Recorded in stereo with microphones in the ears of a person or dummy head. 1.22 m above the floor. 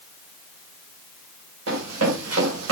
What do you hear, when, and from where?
1.7 s running footsteps: 75° right (ahead or behind), 8.5 m; by 2.7 s 80° right, 8 m